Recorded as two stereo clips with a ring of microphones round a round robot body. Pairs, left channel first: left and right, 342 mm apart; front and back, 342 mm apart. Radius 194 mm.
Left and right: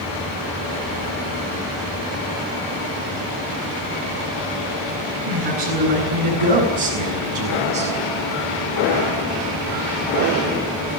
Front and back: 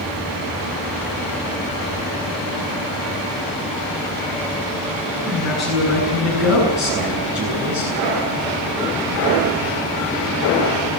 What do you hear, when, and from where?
5.3 s a man speaking: 90° right, 8 m; by 7.9 s 95° right, 6.5 m